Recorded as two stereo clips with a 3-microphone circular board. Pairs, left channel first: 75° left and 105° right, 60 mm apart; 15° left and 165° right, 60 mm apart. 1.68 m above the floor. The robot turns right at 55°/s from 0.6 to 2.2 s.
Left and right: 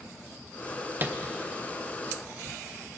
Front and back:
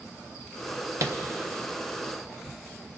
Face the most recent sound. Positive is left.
turn(degrees=-85)